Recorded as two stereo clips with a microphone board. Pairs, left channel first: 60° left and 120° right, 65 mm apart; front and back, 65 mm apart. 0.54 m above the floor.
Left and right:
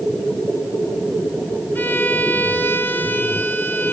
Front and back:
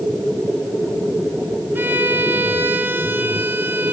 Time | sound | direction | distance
1.8 | a violin | 120° left | 2 m